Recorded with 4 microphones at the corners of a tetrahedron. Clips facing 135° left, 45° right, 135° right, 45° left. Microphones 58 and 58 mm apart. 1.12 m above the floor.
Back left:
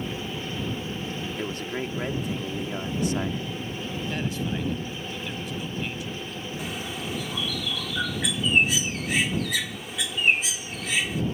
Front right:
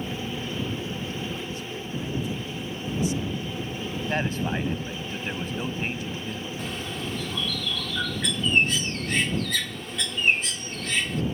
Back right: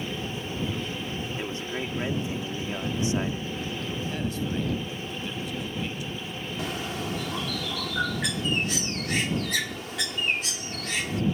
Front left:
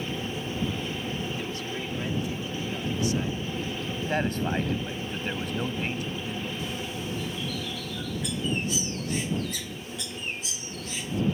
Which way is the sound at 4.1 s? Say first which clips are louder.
Front right 4 dB, front left 6 dB; 5° left.